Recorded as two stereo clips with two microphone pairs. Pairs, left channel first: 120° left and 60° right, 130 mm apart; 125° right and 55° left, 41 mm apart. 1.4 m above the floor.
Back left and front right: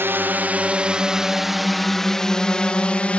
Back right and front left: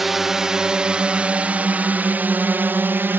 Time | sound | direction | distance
0.0 | a drone | 20° right | ?